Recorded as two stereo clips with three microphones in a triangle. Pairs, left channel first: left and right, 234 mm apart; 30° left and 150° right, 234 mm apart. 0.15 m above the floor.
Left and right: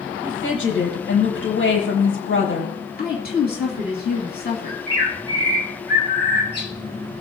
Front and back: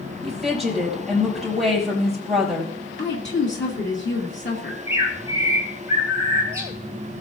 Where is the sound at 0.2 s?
120° left, 5.5 m.